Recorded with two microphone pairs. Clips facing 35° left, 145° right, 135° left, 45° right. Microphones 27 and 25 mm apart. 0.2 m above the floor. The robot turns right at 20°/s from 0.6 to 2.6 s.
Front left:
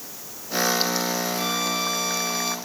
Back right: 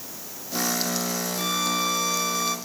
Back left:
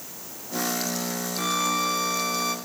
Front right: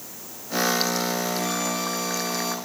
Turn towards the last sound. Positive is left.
turn(degrees=125)